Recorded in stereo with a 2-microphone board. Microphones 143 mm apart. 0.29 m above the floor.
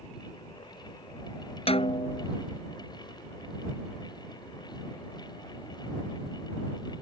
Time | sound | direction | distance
1.7 | a snare drum | 45° left (ahead or behind) | ?